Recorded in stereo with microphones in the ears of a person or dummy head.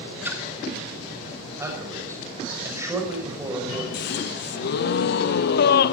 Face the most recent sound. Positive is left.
turn(degrees=60)  # may be behind; listen again after turning